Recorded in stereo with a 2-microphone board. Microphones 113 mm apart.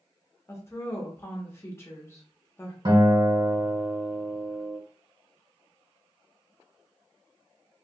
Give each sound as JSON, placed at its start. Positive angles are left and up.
{"t": 0.5, "sound": "a woman speaking", "side_deg": 25, "distance_m": 1.0}
{"t": 2.9, "sound": "a guitar", "side_deg": -50, "distance_m": 1.8}